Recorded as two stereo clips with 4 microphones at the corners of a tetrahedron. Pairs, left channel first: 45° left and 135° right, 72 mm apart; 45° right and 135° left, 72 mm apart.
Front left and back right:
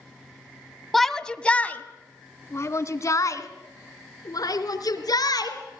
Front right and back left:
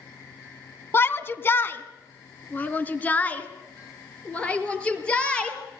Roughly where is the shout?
Ahead right.